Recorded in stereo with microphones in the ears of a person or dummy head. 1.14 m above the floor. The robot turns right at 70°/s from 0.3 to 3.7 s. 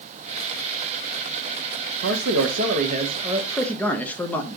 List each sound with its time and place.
2.0 s a man speaking: 105° right, 0.9 m; by 4.6 s 10° left, 0.9 m